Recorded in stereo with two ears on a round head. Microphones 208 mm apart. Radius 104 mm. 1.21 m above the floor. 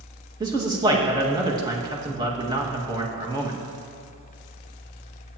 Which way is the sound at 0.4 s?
15° right (ahead or behind).